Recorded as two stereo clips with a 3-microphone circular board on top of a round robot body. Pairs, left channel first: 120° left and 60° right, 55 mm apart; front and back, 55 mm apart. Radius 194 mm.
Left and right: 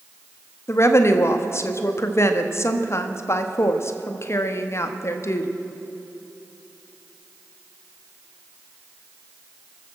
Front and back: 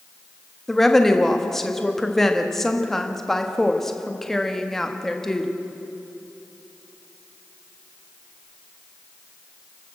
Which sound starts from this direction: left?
A woman speaking, at 0.7 s.